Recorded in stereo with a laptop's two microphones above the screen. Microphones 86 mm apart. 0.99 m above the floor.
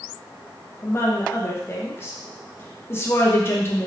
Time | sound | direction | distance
0.8 | a woman speaking | 30° left (ahead or behind) | 0.9 m